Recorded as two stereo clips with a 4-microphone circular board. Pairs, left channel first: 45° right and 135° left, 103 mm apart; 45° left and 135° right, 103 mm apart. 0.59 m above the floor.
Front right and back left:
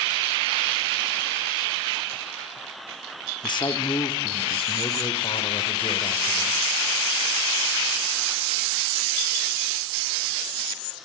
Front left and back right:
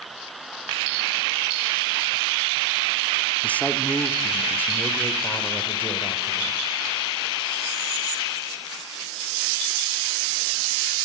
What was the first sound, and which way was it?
A man speaking, 25° right.